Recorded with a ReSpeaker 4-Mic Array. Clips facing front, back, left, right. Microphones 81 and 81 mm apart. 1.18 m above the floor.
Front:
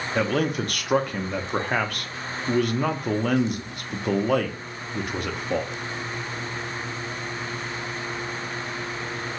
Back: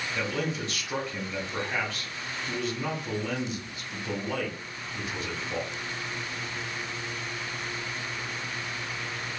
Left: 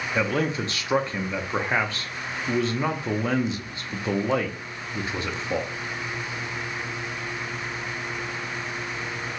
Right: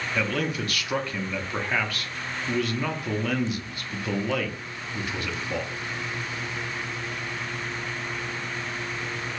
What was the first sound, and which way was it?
A man speaking, 25° left.